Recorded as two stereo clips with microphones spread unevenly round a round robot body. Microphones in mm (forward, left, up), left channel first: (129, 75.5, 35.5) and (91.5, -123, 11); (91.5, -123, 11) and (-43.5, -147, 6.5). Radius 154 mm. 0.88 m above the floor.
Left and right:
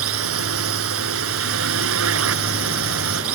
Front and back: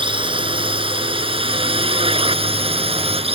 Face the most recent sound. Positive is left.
turn(degrees=-125)